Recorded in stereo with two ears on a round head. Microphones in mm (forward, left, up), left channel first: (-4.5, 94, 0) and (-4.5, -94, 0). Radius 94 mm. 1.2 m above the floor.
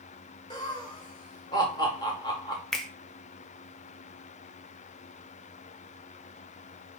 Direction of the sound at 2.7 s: Centre (ahead or behind).